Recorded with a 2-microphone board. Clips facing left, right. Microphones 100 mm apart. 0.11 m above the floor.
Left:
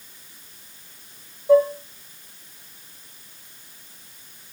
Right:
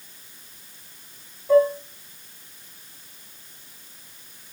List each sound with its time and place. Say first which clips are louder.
1.5 s dishes clattering: left 1 dB; 20° left (ahead or behind), 4 m